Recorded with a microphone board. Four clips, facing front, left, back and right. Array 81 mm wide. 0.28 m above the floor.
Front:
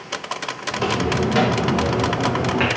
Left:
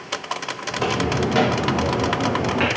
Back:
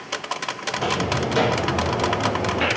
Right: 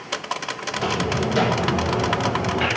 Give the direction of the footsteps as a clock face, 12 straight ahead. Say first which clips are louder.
Left 2 dB, front 2 dB; 10 o'clock.